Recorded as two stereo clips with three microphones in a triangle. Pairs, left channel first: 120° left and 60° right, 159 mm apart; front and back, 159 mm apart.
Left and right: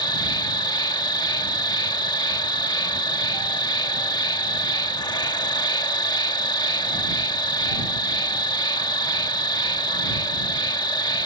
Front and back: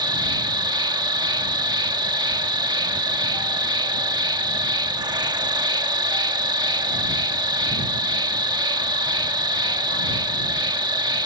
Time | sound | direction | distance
0.0 | an insect | 150° left | ?